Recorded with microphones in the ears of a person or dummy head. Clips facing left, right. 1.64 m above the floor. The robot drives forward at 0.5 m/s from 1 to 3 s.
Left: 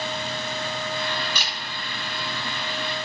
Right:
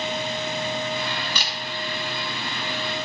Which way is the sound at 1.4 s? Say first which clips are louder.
Right 1 dB; 60° right (ahead or behind).